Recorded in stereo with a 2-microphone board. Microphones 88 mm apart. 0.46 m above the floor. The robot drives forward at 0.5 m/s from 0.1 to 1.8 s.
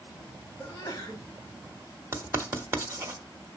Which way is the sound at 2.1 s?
30° right (ahead or behind).